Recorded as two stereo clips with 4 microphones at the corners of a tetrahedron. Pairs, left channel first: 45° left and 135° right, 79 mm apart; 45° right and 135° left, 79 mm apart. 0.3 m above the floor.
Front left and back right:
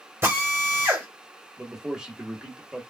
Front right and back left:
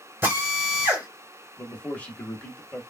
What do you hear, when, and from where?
0.2 s a drill: straight behind, 1.3 m
1.6 s a man speaking: 70° right, 0.9 m